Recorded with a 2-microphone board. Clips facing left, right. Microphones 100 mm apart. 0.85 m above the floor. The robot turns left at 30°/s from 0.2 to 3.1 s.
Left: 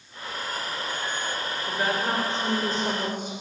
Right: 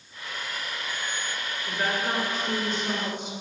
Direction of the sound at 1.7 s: 170° left.